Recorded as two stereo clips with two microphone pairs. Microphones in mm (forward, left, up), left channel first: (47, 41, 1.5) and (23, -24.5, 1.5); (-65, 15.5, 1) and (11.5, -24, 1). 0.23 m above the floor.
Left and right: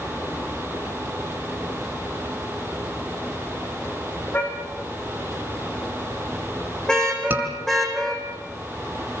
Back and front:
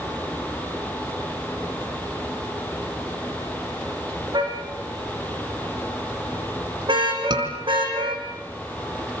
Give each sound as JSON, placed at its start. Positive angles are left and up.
{"t": 4.3, "sound": "a car horn", "azimuth_deg": 5, "distance_m": 8.0}
{"t": 7.3, "sound": "a scream", "azimuth_deg": -50, "distance_m": 4.0}